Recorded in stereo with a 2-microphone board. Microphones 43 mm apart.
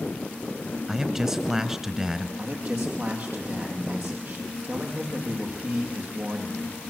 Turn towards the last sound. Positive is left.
turn(degrees=-45)  # may be behind; listen again after turning